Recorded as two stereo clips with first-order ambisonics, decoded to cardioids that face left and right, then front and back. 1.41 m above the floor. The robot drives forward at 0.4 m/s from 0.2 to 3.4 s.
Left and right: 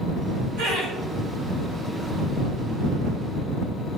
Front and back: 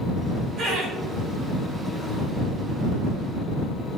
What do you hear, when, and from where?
0.6 s laughter: 120° right, 1.0 m; by 0.9 s 130° right, 1.1 m